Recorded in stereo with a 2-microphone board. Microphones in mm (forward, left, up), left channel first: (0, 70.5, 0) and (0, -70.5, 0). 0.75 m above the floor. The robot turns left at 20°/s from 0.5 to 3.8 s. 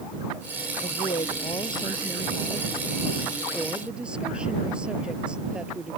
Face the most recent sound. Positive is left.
turn(degrees=-5)